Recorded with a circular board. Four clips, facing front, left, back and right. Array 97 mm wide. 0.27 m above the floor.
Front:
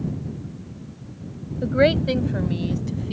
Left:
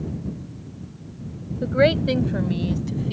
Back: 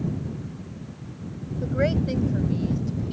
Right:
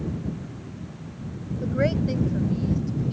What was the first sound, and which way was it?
A woman speaking, 45° left.